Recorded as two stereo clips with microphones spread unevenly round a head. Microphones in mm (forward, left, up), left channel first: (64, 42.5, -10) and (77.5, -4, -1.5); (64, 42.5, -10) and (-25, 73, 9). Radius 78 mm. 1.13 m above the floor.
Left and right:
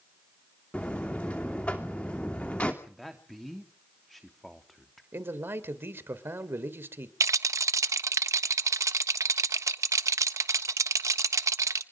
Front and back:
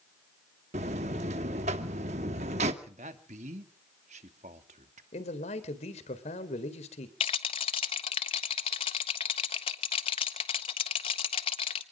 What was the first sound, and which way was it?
A buzzer, 170° right.